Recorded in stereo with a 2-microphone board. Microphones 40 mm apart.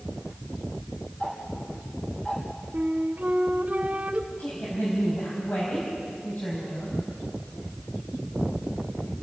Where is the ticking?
30° left (ahead or behind), 4.5 m.